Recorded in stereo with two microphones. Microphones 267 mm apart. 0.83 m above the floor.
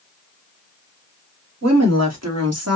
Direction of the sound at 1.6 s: 75° right (ahead or behind).